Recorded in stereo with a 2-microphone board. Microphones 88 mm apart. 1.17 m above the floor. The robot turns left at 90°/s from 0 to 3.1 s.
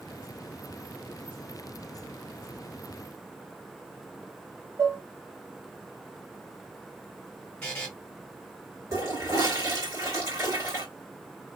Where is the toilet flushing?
40° right (ahead or behind), 1.9 m.